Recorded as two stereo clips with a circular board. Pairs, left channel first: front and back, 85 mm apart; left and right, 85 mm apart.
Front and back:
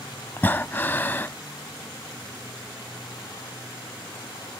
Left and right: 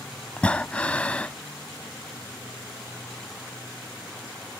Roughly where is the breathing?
Ahead left.